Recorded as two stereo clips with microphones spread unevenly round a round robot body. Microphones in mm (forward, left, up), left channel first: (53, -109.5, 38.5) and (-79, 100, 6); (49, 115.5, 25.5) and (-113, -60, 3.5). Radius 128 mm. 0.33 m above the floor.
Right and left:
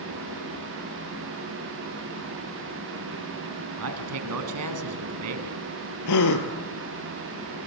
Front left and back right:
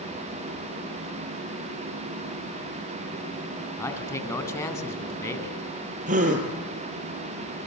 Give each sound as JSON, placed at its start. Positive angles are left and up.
{"t": 3.8, "sound": "a man speaking", "azimuth_deg": 125, "distance_m": 3.5}
{"t": 6.1, "sound": "a gasp", "azimuth_deg": -70, "distance_m": 2.5}